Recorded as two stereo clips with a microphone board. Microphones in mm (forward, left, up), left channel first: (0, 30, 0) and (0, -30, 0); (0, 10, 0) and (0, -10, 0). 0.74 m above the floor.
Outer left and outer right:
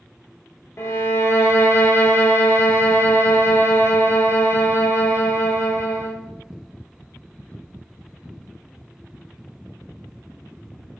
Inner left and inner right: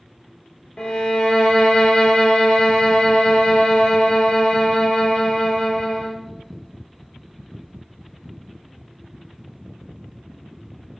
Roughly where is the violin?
Left.